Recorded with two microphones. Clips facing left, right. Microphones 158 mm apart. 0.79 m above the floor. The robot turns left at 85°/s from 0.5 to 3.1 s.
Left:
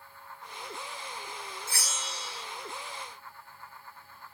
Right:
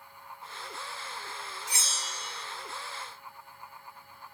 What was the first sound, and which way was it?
A bell, 15° right.